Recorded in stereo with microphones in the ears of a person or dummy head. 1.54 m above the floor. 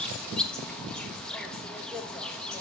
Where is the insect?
5° left (ahead or behind), 1.2 m.